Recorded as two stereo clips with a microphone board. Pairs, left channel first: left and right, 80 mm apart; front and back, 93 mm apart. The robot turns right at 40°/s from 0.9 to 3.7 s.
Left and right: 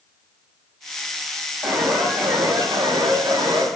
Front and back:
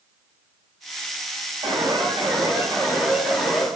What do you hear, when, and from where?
1.6 s an alarm: 170° right, 5 m; by 3.7 s 90° right, 5 m